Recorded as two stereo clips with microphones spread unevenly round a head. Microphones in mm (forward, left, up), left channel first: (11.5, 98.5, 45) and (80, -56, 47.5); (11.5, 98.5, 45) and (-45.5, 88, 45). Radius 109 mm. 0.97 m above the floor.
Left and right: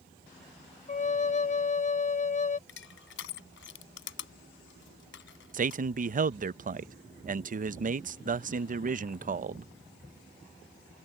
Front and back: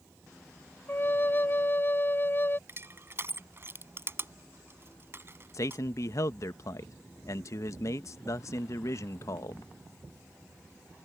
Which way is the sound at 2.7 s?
145° left.